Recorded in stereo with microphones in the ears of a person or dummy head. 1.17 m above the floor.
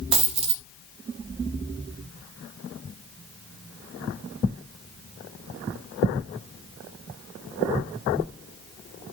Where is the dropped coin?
35° right (ahead or behind), 1.8 m.